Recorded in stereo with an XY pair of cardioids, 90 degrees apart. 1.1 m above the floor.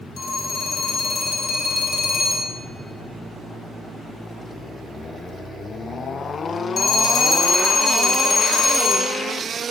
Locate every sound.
0.2 s a phone ringing: 55° left, 1.4 m